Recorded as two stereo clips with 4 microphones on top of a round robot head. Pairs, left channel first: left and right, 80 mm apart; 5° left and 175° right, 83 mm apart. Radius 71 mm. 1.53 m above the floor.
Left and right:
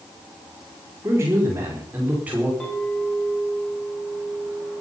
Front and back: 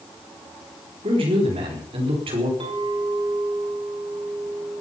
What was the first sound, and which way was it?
A man speaking, 155° right.